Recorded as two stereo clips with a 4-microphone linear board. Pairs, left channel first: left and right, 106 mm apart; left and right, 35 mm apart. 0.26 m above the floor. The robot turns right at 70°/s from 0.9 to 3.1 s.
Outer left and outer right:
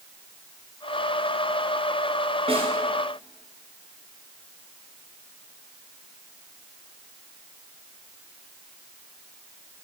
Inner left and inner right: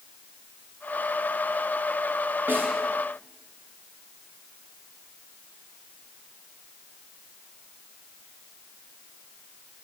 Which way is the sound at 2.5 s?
65° right (ahead or behind).